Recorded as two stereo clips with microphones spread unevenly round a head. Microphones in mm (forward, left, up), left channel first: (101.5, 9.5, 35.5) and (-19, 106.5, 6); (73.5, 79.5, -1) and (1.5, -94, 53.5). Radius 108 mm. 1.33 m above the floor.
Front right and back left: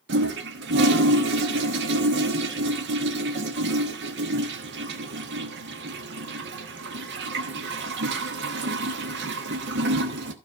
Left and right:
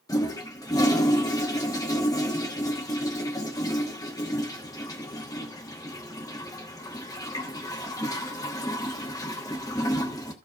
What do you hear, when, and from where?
0.1 s a toilet flushing: 150° left, 1.1 m